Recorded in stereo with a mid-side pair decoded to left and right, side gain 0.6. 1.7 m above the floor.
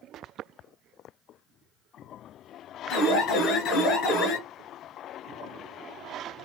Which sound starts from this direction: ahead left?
An alarm, at 2.9 s.